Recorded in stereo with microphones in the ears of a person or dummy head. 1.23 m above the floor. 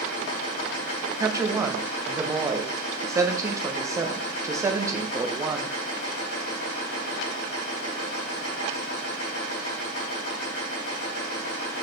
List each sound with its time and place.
0.0 s a machine running: 65° left (ahead or behind), 3.5 m
1.2 s a woman speaking: 15° right (ahead or behind), 0.7 m